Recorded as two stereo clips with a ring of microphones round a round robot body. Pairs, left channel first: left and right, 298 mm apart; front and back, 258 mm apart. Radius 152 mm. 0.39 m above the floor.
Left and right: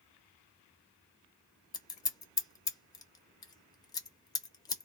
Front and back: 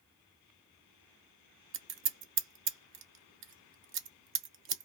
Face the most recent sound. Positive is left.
turn(degrees=165)